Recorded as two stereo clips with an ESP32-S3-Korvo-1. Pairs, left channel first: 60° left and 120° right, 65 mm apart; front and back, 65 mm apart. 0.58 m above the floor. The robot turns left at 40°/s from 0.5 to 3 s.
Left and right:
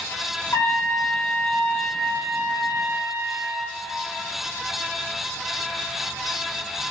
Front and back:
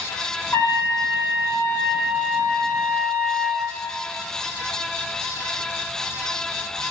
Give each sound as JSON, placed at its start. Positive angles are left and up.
{"t": 0.5, "sound": "a trumpet", "azimuth_deg": 35, "distance_m": 4.0}